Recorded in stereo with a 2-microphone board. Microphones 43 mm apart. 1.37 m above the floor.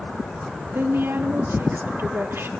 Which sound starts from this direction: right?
A woman speaking, at 0.7 s.